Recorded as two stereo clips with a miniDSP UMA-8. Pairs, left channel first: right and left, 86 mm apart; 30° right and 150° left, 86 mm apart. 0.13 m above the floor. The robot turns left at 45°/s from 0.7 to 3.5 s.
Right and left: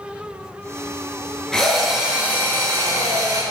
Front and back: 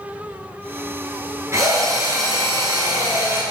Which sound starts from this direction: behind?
A drill, at 1.5 s.